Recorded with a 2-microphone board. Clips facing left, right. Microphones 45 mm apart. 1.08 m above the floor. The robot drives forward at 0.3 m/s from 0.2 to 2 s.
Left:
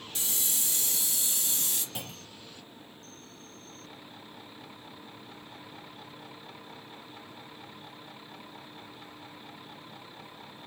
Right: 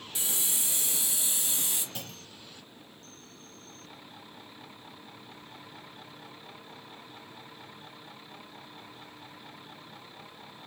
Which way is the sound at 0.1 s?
20° right (ahead or behind).